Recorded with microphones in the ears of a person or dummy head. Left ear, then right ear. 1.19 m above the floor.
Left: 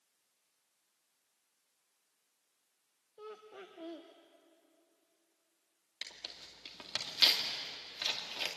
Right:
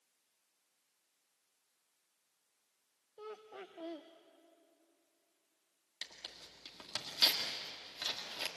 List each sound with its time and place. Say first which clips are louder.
3.2 s laughter: right 1 dB; 20° right (ahead or behind), 0.8 m
6.0 s tearing paper: left 2 dB; 10° left (ahead or behind), 2 m